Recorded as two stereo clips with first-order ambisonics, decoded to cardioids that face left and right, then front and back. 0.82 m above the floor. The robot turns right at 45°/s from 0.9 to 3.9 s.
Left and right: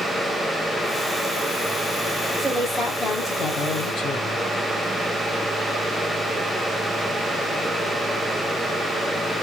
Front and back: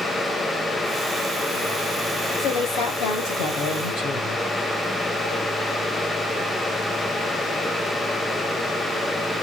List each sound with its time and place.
2.4 s a woman speaking: 25° right, 3.5 m; by 4.4 s 40° left, 3.5 m